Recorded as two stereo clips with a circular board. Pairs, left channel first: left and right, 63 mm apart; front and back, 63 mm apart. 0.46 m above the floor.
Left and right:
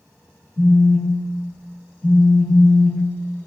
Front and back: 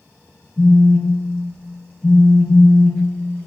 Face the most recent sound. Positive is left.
turn(degrees=120)